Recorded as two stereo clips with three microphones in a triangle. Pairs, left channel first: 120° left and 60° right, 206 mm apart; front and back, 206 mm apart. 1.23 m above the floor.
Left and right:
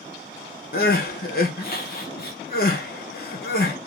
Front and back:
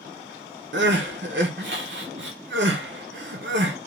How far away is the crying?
About 0.7 m.